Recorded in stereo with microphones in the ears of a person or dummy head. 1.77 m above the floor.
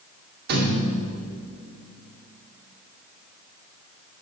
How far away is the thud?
About 2 m.